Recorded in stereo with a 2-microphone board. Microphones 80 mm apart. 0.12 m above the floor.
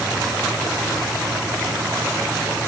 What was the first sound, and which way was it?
Only background noise.